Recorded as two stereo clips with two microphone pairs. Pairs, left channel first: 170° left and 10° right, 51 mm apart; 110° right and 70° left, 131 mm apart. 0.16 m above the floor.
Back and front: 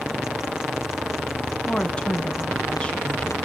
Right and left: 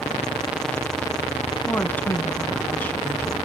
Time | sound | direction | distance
1.7 | a woman speaking | 160° right | 1.0 m